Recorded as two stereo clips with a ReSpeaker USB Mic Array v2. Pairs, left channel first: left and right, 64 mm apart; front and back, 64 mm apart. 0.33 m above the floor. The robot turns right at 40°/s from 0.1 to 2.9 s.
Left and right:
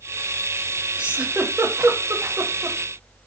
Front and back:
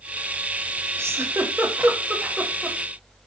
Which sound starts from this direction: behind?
A giggle, at 1.0 s.